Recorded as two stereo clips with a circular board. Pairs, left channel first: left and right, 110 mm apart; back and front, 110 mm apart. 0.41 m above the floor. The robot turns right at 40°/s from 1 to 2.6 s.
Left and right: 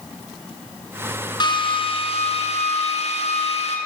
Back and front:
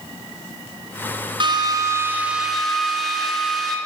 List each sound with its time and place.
1.4 s a drill: 45° left, 4 m; by 3.8 s 90° left, 4 m